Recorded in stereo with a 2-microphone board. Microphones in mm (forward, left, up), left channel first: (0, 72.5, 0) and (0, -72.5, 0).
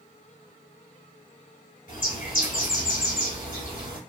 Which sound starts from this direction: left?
A bird, at 1.9 s.